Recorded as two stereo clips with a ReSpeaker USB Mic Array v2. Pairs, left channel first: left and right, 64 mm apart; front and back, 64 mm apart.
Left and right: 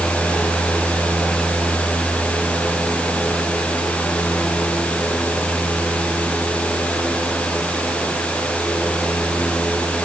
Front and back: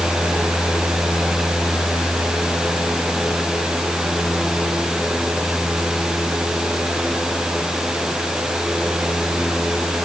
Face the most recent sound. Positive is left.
No sound to turn to.